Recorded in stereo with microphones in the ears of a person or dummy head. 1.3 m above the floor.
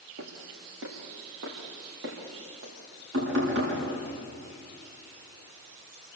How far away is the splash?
No splash in this recording.